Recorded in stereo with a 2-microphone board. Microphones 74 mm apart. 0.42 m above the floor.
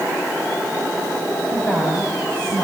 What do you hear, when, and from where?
1.5 s a woman speaking: 15° left (ahead or behind), 2.5 m